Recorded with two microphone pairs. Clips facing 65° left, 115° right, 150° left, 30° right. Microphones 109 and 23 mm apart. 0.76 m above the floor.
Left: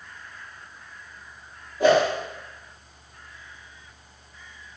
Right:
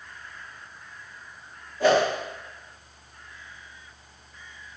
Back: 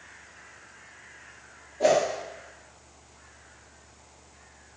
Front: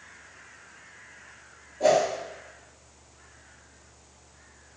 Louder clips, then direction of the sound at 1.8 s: Left 2 dB, front 1 dB; 130° left.